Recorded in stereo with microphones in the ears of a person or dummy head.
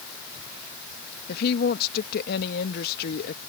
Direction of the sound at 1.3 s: 60° left (ahead or behind).